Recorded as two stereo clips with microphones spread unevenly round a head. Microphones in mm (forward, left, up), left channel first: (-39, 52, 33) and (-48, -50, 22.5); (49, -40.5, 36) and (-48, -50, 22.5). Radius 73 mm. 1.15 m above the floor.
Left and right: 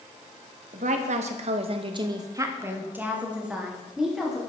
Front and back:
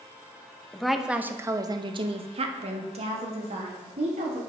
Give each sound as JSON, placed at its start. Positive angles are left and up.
{"t": 0.7, "sound": "a woman speaking", "azimuth_deg": -80, "distance_m": 1.0}